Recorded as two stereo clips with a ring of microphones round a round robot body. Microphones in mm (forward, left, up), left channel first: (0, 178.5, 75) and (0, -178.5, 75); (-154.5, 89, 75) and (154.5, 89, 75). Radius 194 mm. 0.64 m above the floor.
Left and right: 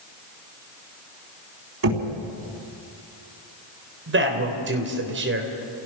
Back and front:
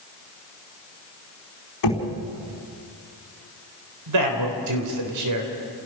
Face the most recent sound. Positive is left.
turn(degrees=-30)